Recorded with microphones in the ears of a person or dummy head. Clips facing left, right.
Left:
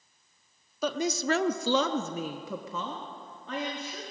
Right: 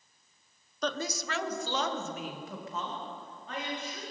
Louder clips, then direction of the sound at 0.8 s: Left 6 dB; 5° left (ahead or behind).